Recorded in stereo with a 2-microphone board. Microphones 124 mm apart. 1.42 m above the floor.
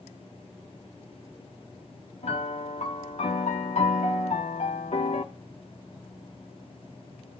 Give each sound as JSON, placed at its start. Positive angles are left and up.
{"t": 2.2, "sound": "a piano", "side_deg": 60, "distance_m": 1.4}